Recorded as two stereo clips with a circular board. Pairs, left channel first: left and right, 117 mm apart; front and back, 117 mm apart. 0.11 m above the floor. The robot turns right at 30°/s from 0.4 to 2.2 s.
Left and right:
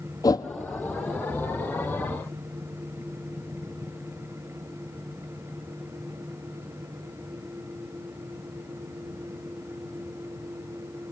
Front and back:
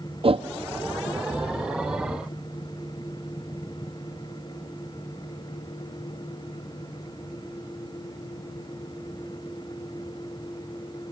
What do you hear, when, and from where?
0.2 s a whoosh: 145° left, 1.0 m; by 0.5 s 150° left, 1.0 m